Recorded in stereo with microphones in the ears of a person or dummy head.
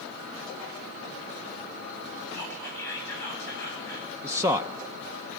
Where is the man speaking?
10° right (ahead or behind), 0.5 m.